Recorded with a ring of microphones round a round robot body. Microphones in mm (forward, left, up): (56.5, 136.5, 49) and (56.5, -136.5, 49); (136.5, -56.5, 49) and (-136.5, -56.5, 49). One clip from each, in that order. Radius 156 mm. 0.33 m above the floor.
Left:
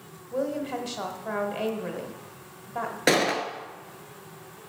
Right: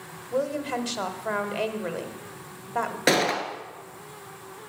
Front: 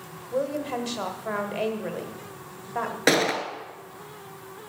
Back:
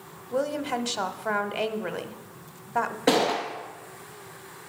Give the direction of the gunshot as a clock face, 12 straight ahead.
12 o'clock.